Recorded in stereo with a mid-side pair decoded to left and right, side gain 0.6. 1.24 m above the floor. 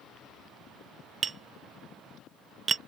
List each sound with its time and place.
1.2 s tapping: 30° right